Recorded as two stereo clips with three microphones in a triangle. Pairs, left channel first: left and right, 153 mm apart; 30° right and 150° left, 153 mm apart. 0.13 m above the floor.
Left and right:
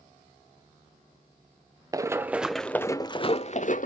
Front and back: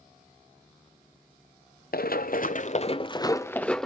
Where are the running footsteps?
20° right, 0.9 m; by 3.9 s 55° left, 0.9 m.